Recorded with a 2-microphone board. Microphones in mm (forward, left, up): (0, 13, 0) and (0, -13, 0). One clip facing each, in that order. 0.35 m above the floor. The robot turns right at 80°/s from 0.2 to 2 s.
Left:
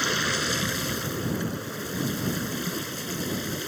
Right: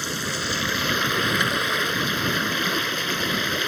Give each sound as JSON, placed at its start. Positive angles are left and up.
{"t": 0.0, "sound": "running water", "azimuth_deg": 165}